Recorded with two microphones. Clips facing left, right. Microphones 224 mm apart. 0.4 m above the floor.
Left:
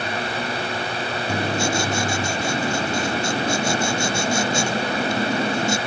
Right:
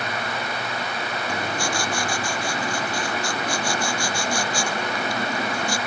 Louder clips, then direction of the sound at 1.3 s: Left 6 dB; 25° left (ahead or behind).